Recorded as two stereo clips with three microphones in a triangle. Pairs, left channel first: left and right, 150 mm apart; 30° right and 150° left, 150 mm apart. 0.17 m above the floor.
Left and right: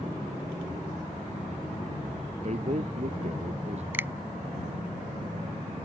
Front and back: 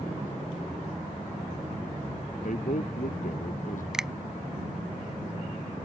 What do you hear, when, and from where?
2.4 s a man speaking: 55° right
3.9 s a finger snap: 130° right